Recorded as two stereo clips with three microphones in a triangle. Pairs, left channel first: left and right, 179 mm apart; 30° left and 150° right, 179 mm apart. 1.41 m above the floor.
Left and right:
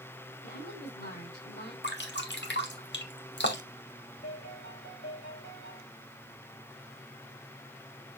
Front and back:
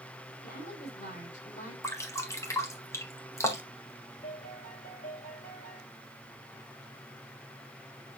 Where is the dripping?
105° left, 1.7 m.